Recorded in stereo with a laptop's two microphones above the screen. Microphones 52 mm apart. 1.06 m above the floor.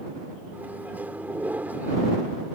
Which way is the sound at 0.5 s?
30° right (ahead or behind).